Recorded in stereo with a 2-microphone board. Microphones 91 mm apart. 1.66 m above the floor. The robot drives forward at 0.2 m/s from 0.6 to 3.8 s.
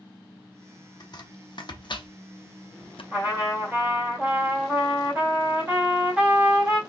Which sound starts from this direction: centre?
A trumpet, at 3.1 s.